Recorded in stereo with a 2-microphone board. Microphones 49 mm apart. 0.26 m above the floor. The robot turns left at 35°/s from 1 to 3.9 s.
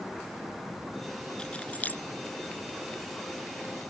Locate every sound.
1.4 s keys jangling: 15° left (ahead or behind); by 2.0 s 40° left (ahead or behind)